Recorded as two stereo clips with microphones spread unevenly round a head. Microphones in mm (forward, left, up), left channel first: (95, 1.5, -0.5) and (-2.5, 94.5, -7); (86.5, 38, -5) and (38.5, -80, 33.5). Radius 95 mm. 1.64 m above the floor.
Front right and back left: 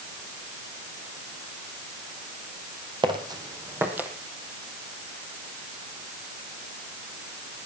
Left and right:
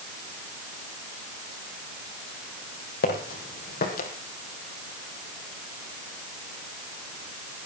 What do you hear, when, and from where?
3.0 s footsteps: 85° left, 3.5 m; by 4.1 s 55° left, 3 m